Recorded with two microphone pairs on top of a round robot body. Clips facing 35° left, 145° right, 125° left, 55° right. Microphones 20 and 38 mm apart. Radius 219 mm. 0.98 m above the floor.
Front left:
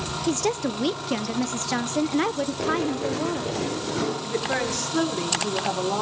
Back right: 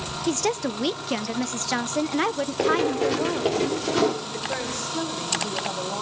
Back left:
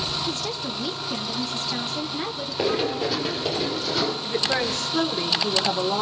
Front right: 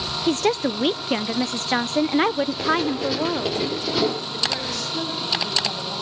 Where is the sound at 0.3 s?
55° right, 0.7 m.